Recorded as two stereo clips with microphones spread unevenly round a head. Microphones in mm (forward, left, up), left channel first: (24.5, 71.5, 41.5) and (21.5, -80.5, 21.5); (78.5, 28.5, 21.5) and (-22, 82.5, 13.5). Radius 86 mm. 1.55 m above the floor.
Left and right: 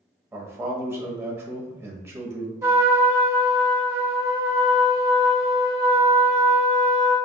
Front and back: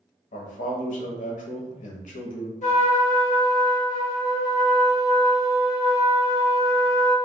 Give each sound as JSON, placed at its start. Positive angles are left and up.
{"t": 0.3, "sound": "a man speaking", "azimuth_deg": -15, "distance_m": 1.0}
{"t": 2.6, "sound": "a trumpet", "azimuth_deg": -20, "distance_m": 1.7}